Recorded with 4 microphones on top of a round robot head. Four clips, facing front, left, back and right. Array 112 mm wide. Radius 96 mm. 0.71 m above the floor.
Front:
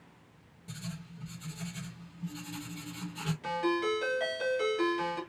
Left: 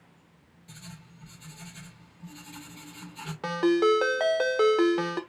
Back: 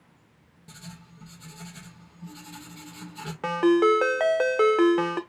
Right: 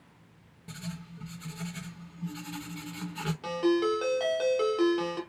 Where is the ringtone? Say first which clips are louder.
Left 4 dB, back 11 dB; 155° left, 1.1 m.